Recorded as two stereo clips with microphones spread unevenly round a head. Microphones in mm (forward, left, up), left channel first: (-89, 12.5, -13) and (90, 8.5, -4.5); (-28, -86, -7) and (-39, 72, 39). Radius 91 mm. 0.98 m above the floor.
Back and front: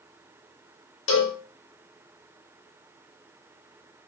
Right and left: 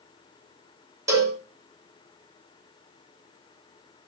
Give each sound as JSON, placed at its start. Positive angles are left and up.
{"t": 1.1, "sound": "a cowbell", "azimuth_deg": 170, "distance_m": 0.9}